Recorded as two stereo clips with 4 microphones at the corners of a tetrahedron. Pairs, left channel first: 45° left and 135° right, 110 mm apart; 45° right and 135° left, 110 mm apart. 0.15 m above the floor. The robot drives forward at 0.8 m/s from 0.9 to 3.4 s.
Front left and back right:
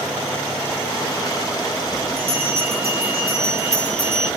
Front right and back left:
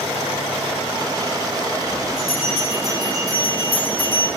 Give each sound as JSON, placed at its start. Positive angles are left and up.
{"t": 2.2, "sound": "a bell", "azimuth_deg": -165, "distance_m": 1.9}